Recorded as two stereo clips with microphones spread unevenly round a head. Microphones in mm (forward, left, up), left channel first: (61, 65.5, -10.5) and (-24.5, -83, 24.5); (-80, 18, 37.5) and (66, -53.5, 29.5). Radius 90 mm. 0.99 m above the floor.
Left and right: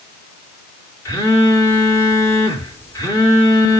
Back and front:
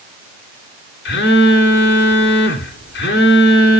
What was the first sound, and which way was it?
A phone buzzing, 135° left.